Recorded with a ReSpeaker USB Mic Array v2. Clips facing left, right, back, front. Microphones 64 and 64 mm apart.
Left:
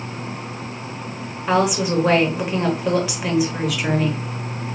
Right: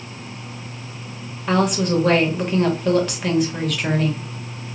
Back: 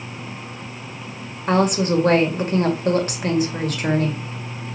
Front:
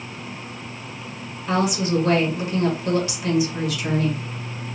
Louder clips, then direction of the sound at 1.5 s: Even, back 3 dB; 170° left.